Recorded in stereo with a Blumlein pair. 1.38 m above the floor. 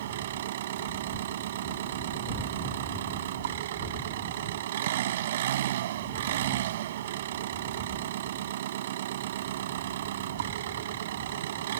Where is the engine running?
60° right.